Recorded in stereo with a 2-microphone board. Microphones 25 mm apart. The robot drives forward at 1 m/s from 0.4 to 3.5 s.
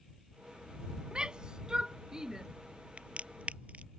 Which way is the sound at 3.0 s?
45° right (ahead or behind).